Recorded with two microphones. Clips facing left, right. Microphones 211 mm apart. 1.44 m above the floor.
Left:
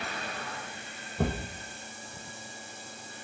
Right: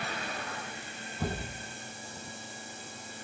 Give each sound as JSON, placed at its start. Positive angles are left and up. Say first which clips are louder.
{"t": 1.2, "sound": "a thud", "louder": "left 5 dB", "side_deg": 65, "distance_m": 3.0}